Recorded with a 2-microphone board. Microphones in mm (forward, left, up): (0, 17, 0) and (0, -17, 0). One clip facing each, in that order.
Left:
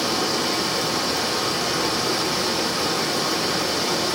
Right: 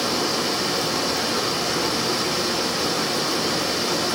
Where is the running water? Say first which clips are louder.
Even; centre (ahead or behind), 1.7 m.